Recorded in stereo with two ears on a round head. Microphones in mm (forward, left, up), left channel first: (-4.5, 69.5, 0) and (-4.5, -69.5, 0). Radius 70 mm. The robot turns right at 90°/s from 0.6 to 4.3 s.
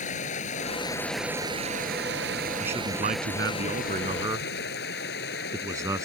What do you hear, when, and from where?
0.0 s running water: 130° left; by 6.0 s 100° left
2.6 s a man speaking: 175° right; by 6.0 s 20° right